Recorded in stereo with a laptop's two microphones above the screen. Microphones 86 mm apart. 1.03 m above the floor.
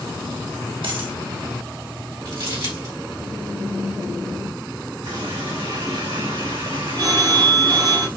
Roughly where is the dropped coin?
Right.